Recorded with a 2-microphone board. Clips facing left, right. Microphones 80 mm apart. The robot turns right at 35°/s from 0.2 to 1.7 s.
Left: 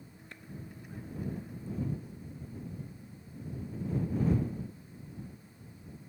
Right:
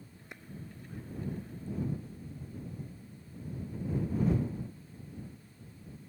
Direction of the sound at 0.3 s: 20° right (ahead or behind).